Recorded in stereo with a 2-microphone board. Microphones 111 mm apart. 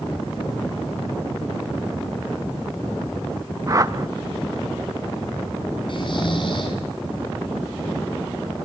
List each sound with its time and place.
3.7 s a whoosh: 35° right (ahead or behind), 0.6 m
5.9 s snoring: 50° left (ahead or behind), 5.5 m